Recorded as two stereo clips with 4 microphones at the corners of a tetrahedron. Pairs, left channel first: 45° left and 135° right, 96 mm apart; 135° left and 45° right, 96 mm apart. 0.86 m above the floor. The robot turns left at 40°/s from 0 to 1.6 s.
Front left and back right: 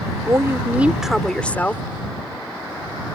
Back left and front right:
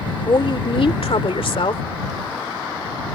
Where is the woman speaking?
170° left; by 1.8 s 120° left.